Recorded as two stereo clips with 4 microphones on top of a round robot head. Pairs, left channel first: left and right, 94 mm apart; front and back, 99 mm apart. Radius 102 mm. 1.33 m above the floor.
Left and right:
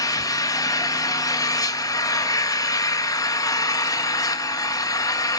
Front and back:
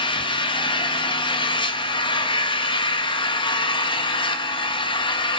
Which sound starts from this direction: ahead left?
An engine running, at 0.0 s.